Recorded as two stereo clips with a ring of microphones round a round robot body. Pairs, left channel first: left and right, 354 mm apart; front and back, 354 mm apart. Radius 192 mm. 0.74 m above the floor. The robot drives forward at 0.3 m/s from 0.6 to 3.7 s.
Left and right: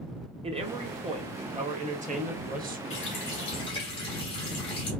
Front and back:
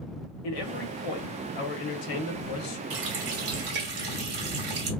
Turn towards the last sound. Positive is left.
turn(degrees=165)